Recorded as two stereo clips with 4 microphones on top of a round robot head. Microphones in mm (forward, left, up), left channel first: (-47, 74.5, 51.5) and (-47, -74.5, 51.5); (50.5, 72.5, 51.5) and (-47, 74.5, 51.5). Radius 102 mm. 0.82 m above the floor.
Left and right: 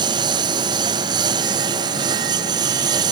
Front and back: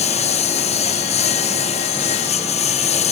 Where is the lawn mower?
25° right; by 3.1 s 20° right.